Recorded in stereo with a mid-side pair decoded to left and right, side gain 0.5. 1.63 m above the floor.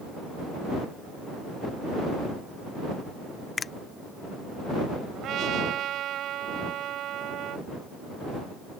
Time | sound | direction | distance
3.6 | a finger snap | 35° left | ?
5.2 | a trumpet | 65° right | ?